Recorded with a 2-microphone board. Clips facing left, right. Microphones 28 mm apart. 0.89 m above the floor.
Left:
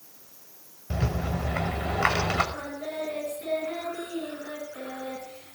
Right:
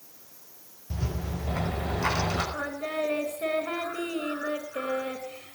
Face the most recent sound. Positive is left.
turn(degrees=-85)